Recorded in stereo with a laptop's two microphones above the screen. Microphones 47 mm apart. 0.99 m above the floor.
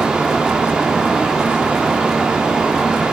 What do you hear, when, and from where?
0.0 s a fan: 15° right (ahead or behind), 2 m